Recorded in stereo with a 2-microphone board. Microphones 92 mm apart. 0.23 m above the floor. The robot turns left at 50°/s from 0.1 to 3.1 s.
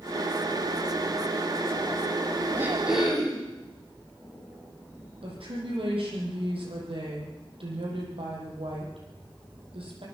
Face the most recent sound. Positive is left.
turn(degrees=-75)  # may be behind; listen again after turning